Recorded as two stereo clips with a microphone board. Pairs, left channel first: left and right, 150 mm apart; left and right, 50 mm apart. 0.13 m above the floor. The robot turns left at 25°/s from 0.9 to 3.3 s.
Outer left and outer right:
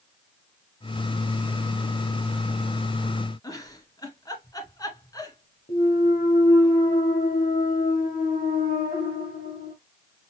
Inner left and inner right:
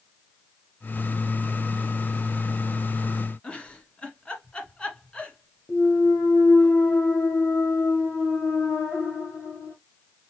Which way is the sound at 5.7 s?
75° left (ahead or behind).